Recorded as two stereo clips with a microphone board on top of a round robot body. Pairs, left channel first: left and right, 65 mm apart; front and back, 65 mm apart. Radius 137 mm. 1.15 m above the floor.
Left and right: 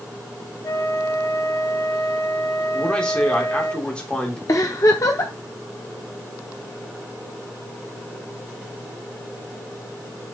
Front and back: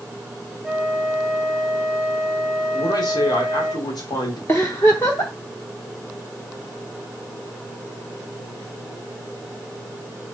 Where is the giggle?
65° left, 0.9 m.